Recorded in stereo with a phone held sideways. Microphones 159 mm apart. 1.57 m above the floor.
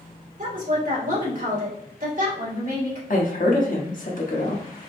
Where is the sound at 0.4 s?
55° right (ahead or behind), 2 m.